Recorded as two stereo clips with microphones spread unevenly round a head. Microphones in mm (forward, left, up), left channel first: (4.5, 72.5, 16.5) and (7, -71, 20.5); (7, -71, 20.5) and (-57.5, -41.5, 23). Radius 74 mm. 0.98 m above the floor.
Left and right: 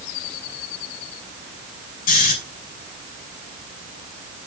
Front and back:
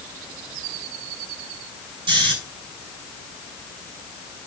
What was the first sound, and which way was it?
Snoring, 130° left.